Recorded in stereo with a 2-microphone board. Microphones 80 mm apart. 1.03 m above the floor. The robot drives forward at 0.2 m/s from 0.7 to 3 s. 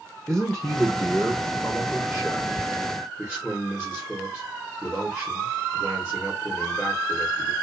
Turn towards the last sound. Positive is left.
turn(degrees=0)  # may be behind; listen again after turning